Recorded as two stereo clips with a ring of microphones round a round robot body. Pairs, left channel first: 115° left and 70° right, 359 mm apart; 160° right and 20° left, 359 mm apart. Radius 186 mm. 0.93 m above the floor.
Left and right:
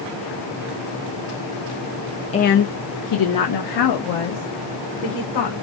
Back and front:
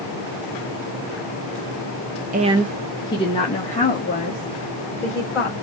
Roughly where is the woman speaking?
Ahead left.